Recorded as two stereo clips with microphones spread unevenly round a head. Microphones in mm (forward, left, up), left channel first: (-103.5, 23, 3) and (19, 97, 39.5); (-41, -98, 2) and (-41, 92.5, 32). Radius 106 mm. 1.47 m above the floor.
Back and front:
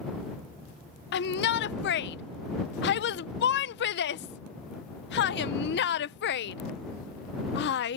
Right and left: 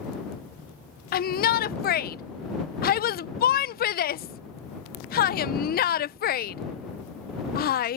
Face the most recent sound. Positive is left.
turn(degrees=-135)